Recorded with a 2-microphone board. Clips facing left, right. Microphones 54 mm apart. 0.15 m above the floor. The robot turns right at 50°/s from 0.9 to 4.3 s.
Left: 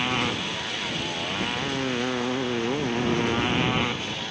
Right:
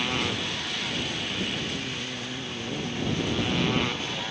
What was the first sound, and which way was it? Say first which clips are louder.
A motorcycle: left 2 dB; 20° left.